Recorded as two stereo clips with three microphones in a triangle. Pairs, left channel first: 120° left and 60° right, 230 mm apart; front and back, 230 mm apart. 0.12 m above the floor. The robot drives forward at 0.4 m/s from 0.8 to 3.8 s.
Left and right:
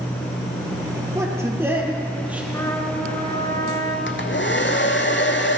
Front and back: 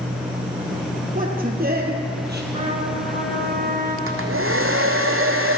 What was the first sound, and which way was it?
A man speaking, 135° right.